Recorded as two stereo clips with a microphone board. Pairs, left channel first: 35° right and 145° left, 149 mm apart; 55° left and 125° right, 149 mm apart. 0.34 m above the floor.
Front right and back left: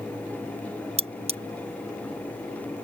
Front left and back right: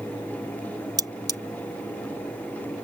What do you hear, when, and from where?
1.0 s cutlery clinking: 175° left